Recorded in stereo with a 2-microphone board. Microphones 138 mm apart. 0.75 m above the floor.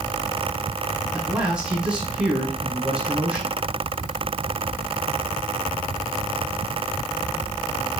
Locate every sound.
1.1 s a man speaking: 5° right (ahead or behind), 4.5 m